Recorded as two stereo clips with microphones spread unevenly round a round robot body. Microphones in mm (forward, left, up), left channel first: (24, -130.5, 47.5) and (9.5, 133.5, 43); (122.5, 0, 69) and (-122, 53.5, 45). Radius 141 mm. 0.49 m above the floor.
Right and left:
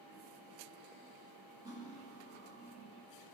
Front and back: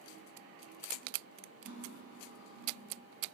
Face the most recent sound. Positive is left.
turn(degrees=170)